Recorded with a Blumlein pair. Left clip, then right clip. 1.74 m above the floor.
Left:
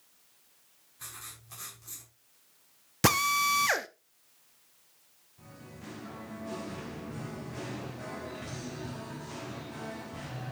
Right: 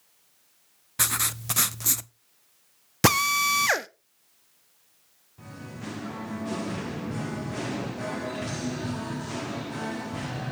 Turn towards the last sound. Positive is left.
turn(degrees=-65)